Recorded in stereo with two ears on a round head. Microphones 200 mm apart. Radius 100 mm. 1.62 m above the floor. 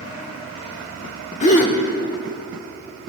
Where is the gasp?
35° left (ahead or behind), 1.4 m.